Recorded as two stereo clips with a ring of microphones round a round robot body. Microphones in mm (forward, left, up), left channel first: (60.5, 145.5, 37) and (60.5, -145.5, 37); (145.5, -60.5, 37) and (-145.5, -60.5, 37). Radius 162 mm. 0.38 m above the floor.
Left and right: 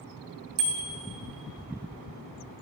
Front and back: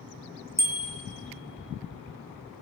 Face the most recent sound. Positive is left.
turn(degrees=-100)